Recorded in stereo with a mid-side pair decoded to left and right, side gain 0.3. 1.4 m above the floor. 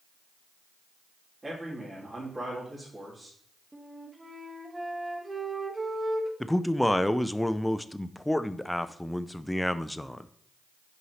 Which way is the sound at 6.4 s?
5° left.